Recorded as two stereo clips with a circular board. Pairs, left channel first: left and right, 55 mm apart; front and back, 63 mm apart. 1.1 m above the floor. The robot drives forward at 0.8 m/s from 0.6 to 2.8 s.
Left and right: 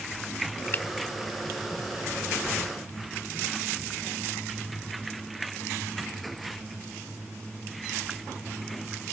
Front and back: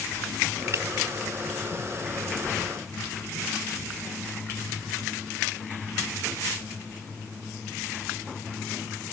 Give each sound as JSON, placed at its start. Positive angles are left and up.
{"t": 0.7, "sound": "a finger snap", "azimuth_deg": 140}